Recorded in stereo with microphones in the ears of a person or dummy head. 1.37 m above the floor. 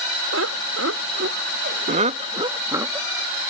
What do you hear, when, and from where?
0.3 s laughter: 80° right; by 3.1 s 10° right (ahead or behind)